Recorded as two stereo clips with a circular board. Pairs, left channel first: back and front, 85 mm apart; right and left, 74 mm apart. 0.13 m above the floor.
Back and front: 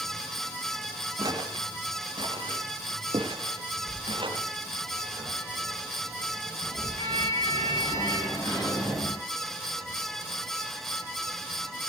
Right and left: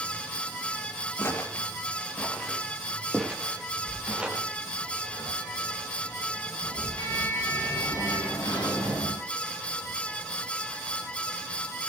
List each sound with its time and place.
1.2 s footsteps: 35° right, 3 m; by 4.4 s 15° left, 4.5 m
3.9 s a sliding door: 130° right, 10 m